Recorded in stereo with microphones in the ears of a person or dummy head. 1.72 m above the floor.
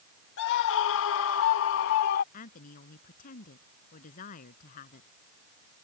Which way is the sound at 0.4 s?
60° left (ahead or behind).